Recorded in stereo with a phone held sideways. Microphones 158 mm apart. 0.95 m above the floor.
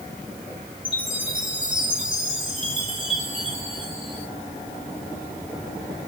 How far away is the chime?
About 4 m.